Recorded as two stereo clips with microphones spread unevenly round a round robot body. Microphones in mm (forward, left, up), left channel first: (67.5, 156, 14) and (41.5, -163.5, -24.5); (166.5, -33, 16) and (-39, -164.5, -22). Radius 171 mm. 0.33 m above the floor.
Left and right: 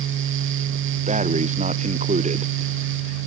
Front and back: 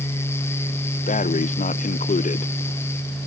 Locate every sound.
1.1 s breathing: 25° right